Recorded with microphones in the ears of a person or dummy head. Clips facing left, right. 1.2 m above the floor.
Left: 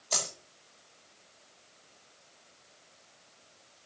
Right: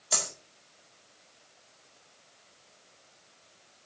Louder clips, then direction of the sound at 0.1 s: Even; 10° right (ahead or behind).